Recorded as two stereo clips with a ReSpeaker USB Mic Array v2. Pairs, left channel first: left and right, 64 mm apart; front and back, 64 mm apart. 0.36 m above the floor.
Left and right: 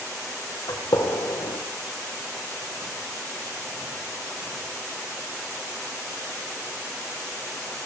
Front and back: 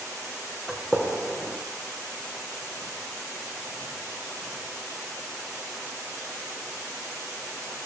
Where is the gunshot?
80° left, 5.5 m.